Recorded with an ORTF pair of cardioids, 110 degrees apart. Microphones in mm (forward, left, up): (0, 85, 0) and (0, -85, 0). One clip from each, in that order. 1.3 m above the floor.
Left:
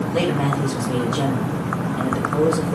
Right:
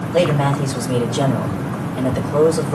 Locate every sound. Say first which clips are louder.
0.1 s a man speaking: right 6 dB; 20° right, 5 m